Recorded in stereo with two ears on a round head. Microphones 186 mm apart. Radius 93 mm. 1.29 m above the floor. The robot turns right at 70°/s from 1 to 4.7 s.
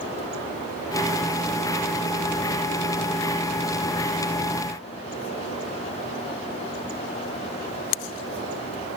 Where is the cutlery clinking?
No cutlery clinking in this recording.